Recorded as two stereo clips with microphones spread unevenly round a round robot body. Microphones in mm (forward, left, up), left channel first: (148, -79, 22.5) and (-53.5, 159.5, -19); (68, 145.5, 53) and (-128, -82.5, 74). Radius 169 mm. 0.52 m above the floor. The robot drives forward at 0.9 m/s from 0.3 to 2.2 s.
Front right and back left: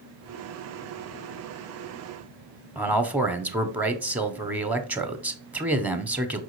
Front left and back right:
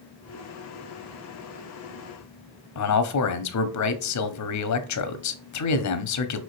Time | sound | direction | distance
2.8 | a man speaking | 50° left | 1.2 m